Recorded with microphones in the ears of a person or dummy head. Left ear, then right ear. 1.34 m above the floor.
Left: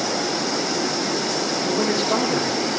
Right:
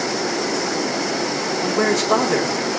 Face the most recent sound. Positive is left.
turn(degrees=-60)  # may be behind; listen again after turning